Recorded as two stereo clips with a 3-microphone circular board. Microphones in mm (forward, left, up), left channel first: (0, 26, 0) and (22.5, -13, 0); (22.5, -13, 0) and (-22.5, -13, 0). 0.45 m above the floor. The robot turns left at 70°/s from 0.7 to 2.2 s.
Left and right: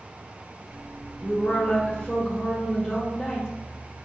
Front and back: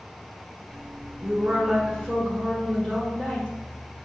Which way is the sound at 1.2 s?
130° left.